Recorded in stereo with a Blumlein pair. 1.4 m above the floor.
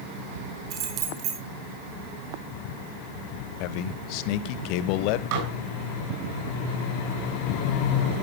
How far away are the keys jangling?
About 5 m.